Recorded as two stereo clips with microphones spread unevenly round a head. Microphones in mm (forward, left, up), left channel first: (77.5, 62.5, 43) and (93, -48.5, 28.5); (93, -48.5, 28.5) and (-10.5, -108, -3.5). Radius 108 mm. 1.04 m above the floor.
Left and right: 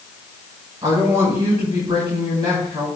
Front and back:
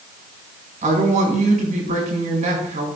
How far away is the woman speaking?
About 5 m.